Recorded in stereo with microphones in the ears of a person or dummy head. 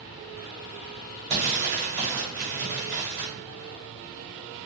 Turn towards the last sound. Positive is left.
turn(degrees=-50)  # may be behind; listen again after turning